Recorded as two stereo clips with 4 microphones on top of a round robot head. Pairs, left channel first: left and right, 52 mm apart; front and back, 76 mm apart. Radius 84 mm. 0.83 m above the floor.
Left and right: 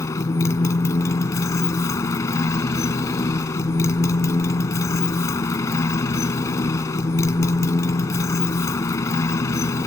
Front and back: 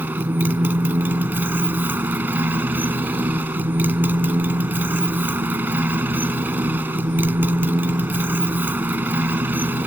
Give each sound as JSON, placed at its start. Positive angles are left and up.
{"t": 0.0, "sound": "a motorcycle", "azimuth_deg": 110}